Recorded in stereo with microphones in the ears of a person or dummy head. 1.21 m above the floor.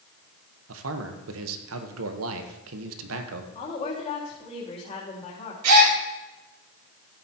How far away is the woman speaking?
About 3 m.